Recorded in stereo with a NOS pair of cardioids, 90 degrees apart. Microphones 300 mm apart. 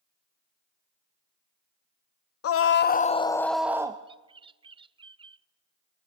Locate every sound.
2.4 s a scream: 55° left, 0.8 m; by 4.0 s 15° right, 1.0 m
4.1 s a bird: 20° right, 0.5 m